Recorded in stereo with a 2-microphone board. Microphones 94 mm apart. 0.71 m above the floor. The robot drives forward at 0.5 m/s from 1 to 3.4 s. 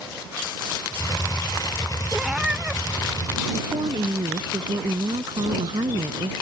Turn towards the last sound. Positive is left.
turn(degrees=-60)  # may be behind; listen again after turning